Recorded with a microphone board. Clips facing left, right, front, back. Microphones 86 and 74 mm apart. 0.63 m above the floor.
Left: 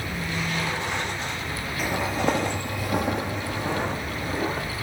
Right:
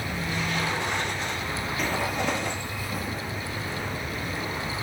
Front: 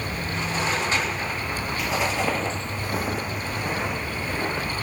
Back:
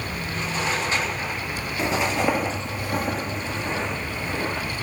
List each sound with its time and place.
1.8 s footsteps: 175° left, 0.7 m; by 4.7 s 75° left, 3 m